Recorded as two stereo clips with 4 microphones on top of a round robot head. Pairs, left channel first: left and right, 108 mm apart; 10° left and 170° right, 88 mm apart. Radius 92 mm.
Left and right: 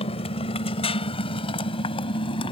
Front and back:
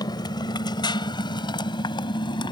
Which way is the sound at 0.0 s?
55° left.